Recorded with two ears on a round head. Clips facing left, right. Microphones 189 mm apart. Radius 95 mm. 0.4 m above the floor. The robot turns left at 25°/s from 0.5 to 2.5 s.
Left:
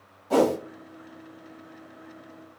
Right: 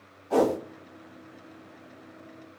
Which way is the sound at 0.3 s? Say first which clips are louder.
Left 2 dB; 55° left (ahead or behind).